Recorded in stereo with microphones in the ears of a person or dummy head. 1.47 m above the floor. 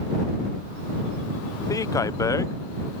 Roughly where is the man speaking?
Centre.